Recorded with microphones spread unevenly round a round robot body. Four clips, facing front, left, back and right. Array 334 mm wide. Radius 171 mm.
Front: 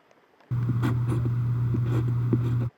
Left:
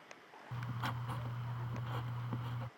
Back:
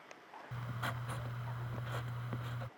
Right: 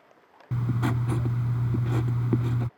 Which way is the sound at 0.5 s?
50° right.